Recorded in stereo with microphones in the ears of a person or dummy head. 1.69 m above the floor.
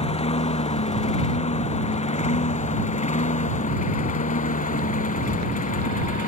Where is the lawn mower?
35° left (ahead or behind); by 6.3 s 45° left (ahead or behind).